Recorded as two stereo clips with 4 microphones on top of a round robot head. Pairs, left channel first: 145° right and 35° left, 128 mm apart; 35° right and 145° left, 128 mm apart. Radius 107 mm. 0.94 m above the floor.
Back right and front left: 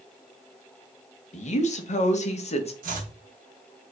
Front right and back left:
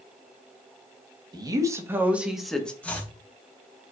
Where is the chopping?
45° left, 1.5 m.